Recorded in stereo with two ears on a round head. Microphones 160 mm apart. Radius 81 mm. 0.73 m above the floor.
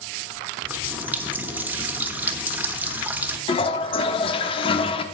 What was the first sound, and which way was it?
A running tap, 10° right (ahead or behind).